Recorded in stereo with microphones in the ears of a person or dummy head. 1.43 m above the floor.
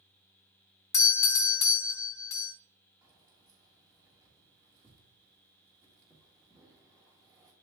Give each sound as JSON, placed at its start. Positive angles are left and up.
{"t": 0.9, "sound": "a doorbell", "side_deg": 15, "distance_m": 0.6}
{"t": 3.0, "sound": "keys jangling", "side_deg": -15, "distance_m": 1.7}